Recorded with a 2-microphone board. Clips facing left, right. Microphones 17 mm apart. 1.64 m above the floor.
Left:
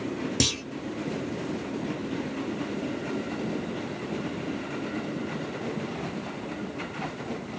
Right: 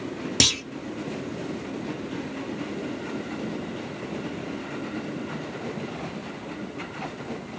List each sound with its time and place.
0.4 s a clunk: 35° right (ahead or behind), 0.5 m